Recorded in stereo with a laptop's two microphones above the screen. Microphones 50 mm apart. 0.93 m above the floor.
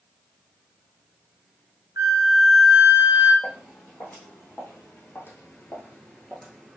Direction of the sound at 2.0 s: 90° right.